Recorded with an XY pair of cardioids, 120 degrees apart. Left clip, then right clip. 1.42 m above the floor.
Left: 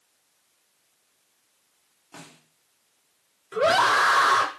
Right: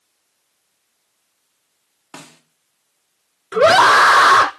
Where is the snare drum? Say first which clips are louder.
Right 6 dB; 45° right, 3.5 m.